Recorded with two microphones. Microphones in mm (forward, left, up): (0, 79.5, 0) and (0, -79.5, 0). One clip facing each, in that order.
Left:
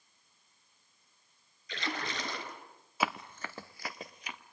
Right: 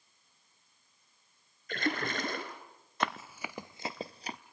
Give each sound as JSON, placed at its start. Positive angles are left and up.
{"t": 1.7, "sound": "a splash", "side_deg": -50, "distance_m": 2.5}
{"t": 3.0, "sound": "running footsteps", "side_deg": 5, "distance_m": 0.8}